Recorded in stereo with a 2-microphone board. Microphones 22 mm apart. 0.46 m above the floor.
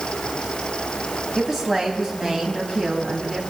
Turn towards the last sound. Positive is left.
turn(degrees=0)  # may be behind; listen again after turning